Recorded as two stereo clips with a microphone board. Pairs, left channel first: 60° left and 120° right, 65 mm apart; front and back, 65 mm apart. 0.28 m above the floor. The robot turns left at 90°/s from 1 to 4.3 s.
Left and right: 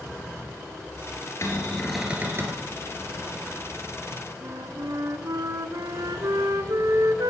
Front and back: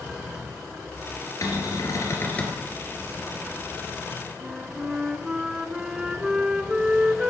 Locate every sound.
1.4 s a cupboard door: 20° left, 3 m; by 2.6 s 90° right, 3 m
4.4 s a flute: 105° right, 0.9 m